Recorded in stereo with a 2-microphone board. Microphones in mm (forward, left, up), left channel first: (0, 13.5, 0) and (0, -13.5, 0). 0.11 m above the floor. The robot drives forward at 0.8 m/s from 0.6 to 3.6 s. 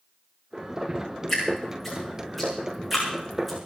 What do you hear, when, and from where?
1.3 s dripping: 5° left (ahead or behind), 9 m